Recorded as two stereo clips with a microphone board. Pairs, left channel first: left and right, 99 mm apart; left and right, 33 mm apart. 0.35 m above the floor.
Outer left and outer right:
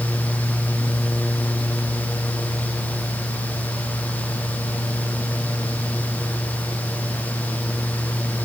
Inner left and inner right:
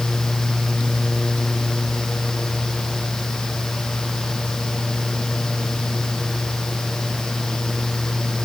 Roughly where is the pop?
No pop in this recording.